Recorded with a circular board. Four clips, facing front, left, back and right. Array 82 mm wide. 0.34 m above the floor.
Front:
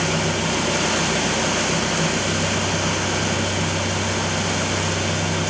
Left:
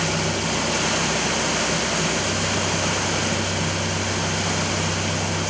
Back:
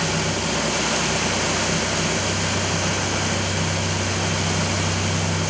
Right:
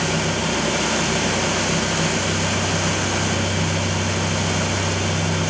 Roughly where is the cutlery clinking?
No cutlery clinking in this recording.